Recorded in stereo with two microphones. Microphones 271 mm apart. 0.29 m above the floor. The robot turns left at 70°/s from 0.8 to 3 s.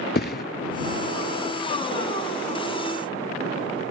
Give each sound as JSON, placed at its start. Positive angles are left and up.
{"t": 0.1, "sound": "a thud", "side_deg": 35}